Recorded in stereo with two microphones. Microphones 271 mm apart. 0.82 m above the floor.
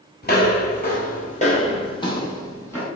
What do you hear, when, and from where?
0.2 s footsteps: 35° left (ahead or behind), 1.0 m; by 2.9 s 10° left (ahead or behind), 1.5 m